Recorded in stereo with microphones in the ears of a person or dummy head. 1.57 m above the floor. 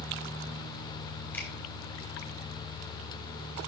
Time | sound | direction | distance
1.3 | a finger snap | 10° left (ahead or behind) | 4 m